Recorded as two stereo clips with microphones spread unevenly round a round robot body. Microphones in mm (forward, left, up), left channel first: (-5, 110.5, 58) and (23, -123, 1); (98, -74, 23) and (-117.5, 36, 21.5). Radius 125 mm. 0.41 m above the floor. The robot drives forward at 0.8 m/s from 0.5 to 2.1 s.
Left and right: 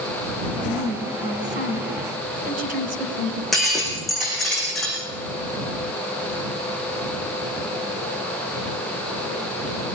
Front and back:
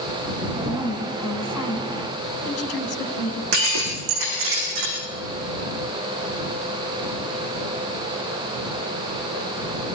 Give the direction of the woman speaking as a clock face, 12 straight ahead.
1 o'clock.